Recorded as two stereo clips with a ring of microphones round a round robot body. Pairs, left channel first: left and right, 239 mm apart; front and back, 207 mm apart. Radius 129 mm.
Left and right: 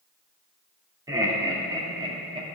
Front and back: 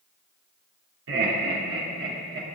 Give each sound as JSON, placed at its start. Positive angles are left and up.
{"t": 1.1, "sound": "laughter", "azimuth_deg": -165, "distance_m": 2.5}